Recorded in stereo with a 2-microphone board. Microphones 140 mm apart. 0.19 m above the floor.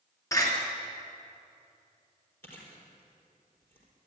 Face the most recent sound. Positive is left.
turn(degrees=15)  # may be behind; listen again after turning